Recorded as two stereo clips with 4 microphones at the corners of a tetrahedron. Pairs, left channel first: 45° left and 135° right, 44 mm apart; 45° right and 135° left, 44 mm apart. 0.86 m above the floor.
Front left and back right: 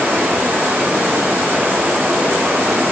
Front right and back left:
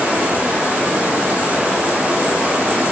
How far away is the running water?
About 3.5 m.